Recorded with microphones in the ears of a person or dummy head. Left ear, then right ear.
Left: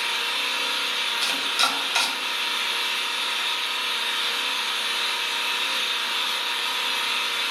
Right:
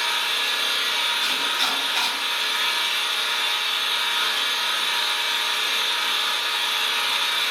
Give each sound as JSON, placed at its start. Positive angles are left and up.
{"t": 0.0, "sound": "an engine running", "side_deg": -50, "distance_m": 1.3}
{"t": 1.2, "sound": "chopping", "side_deg": 60, "distance_m": 0.9}